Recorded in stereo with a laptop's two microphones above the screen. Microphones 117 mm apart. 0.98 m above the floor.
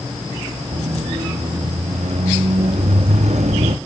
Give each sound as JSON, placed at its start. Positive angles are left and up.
{"t": 0.7, "sound": "a squeak", "side_deg": -70}